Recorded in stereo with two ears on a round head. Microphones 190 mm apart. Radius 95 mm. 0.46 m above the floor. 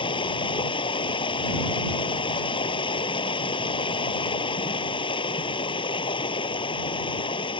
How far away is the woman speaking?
I don't hear a woman speaking.